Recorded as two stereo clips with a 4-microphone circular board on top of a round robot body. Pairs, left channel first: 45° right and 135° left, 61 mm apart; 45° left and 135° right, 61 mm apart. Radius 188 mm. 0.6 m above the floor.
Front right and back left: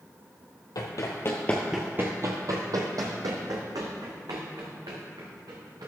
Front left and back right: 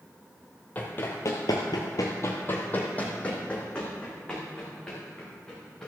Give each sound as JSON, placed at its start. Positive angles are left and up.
{"t": 0.8, "sound": "running footsteps", "azimuth_deg": -20, "distance_m": 1.3}